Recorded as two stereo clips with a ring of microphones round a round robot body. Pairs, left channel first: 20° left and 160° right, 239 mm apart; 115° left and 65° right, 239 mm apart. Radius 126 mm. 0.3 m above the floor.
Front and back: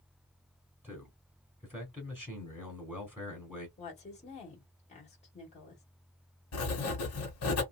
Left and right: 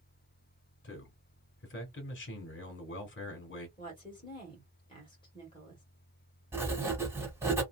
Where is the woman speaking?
60° left, 1.7 m.